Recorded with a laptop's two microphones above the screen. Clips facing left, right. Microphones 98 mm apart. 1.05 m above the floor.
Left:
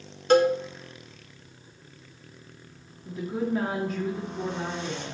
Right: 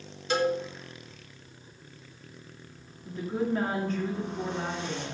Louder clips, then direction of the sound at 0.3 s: Left 7 dB; 55° left (ahead or behind).